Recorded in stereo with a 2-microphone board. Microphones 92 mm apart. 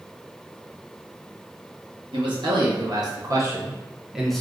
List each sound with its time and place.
2.1 s a man speaking: 60° right (ahead or behind), 1.3 m; by 4.4 s 5° left (ahead or behind), 0.6 m